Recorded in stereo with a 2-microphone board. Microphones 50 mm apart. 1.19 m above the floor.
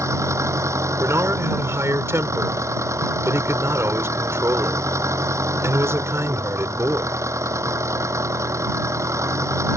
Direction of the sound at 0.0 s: 75° right (ahead or behind).